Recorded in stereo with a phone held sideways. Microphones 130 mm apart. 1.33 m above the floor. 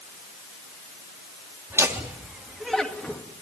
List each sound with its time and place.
1.7 s laughter: 20° right (ahead or behind), 3.5 m; by 3.2 s 15° left (ahead or behind), 2.5 m